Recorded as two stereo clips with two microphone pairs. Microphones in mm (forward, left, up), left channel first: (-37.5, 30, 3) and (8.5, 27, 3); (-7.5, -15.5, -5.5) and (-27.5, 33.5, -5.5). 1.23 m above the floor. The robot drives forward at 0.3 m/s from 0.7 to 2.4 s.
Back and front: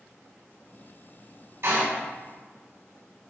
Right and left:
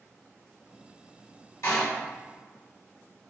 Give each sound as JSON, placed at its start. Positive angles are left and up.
{"t": 1.6, "sound": "a door slam", "azimuth_deg": -40, "distance_m": 3.0}